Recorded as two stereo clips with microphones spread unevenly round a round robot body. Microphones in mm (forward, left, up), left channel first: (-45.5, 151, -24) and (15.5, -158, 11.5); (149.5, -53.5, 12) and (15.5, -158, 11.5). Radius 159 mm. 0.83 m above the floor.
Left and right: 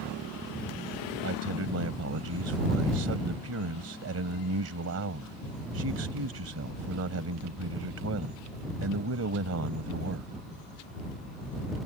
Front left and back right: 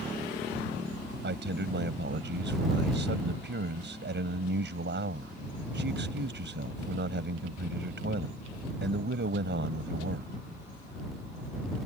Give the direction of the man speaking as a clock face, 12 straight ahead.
4 o'clock.